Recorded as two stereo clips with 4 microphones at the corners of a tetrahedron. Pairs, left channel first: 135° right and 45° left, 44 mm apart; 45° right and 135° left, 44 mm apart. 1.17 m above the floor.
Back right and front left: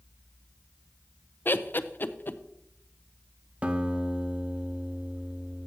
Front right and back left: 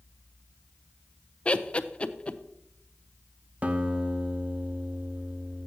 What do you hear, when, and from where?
1.4 s laughter: 105° right, 0.5 m
3.6 s a guitar: 90° left, 0.8 m